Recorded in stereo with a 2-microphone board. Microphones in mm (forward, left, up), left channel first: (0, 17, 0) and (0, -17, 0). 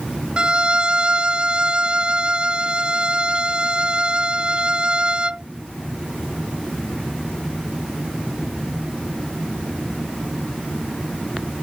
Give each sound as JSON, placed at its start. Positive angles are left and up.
{"t": 0.4, "sound": "a violin", "side_deg": -30}